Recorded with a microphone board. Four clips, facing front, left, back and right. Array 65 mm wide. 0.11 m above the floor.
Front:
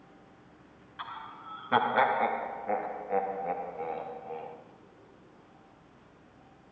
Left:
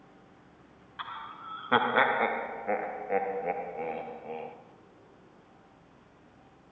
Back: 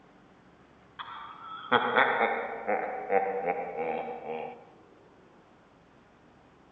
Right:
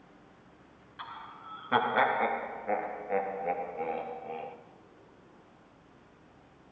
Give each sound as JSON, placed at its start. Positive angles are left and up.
{"t": 1.0, "sound": "laughter", "azimuth_deg": 105, "distance_m": 1.2}